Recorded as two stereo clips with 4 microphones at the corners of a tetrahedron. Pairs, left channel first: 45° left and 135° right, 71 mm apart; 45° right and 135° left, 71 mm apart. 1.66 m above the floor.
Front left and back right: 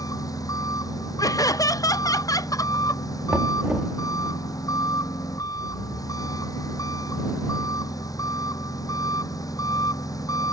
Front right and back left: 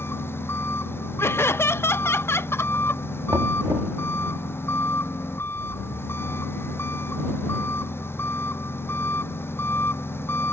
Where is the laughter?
10° left.